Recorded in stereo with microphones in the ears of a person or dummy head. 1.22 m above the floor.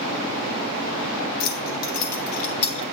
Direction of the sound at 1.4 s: 50° left (ahead or behind).